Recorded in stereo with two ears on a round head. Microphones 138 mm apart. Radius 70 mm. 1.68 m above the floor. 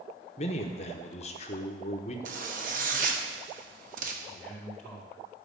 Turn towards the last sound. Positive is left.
turn(degrees=0)  # may be behind; listen again after turning